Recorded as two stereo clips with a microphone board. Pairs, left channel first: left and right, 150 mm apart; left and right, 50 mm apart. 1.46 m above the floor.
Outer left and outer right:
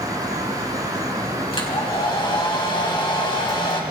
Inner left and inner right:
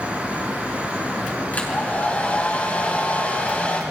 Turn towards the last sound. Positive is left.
turn(degrees=35)  # may be behind; listen again after turning